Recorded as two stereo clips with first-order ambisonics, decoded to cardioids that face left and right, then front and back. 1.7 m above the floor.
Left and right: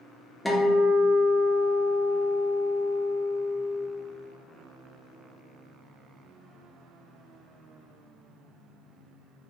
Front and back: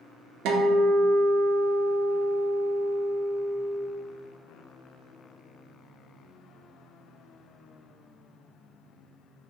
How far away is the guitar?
About 0.6 m.